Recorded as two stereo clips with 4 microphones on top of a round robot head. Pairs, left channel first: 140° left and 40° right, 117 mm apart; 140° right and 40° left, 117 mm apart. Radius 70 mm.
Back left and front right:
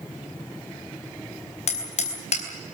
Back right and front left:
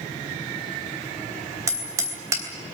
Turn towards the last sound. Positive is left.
turn(degrees=110)